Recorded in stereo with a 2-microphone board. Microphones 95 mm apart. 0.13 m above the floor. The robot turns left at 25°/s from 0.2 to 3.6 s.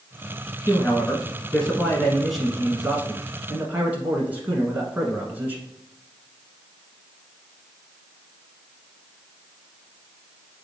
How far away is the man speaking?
About 1.2 m.